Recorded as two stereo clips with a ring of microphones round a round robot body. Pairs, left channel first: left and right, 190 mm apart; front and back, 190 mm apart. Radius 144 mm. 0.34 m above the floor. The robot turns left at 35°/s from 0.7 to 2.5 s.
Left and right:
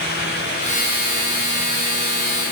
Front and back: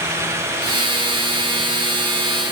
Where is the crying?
No crying in this recording.